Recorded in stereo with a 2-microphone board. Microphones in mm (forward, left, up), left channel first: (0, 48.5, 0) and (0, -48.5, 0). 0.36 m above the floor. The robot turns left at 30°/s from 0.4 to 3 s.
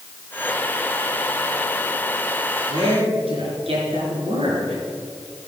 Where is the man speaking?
80° right, 4.5 m; by 4.8 s 75° right (ahead or behind), 4.5 m.